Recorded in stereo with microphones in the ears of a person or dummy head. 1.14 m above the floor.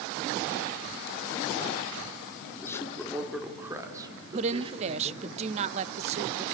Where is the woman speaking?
30° right (ahead or behind), 0.5 m.